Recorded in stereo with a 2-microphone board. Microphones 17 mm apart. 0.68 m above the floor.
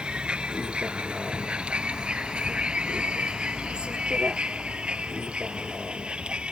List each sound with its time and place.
0.0 s a vehicle: 90° right; by 6.5 s 80° right